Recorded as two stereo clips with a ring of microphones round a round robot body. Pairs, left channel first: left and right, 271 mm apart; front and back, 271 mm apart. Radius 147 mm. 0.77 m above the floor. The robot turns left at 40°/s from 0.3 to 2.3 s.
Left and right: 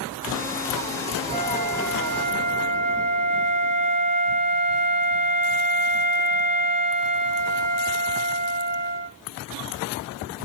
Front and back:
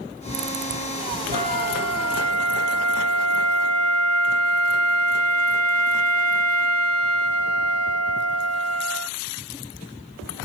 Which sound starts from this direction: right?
A flute, at 1.3 s.